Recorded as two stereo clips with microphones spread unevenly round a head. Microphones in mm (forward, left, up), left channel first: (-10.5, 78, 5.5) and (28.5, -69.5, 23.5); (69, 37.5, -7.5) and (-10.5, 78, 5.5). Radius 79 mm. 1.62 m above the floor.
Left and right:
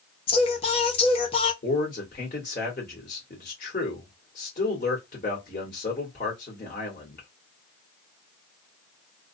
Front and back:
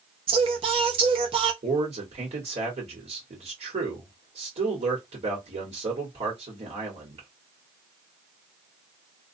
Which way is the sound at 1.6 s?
155° left.